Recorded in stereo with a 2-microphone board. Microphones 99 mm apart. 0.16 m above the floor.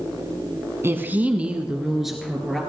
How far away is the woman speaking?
About 1.3 m.